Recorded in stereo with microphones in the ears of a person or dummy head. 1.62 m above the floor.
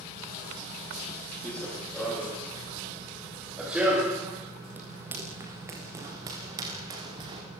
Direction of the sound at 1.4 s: 5° left (ahead or behind).